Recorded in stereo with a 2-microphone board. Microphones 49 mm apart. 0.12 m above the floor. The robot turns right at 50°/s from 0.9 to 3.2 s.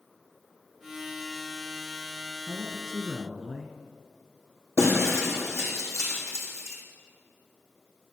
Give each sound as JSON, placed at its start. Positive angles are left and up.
{"t": 2.5, "sound": "a man speaking", "side_deg": 20, "distance_m": 1.8}
{"t": 4.8, "sound": "breaking glass", "side_deg": 80, "distance_m": 3.5}